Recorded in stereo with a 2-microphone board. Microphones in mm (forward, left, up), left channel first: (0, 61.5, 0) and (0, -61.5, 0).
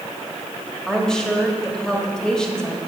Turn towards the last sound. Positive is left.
turn(degrees=5)  # may be behind; listen again after turning